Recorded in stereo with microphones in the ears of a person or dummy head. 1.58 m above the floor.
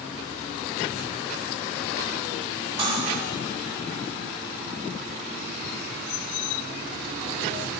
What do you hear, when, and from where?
2.8 s cutlery clinking: 30° right (ahead or behind), 6 m